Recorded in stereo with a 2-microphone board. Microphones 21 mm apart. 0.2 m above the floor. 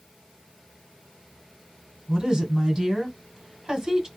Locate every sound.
2.1 s a woman speaking: 35° right (ahead or behind), 1.3 m